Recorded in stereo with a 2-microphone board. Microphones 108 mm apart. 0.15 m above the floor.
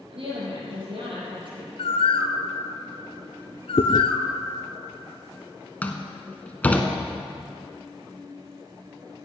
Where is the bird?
70° left (ahead or behind), 0.8 m.